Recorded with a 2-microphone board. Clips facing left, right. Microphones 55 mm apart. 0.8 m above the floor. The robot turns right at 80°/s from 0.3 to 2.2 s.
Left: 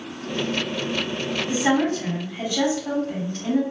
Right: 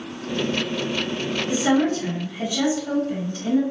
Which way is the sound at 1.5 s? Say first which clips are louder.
Right 1 dB; 50° left.